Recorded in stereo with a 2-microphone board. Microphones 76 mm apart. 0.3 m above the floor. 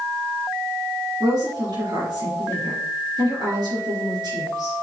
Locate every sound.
1.2 s a woman speaking: 70° right (ahead or behind), 4.5 m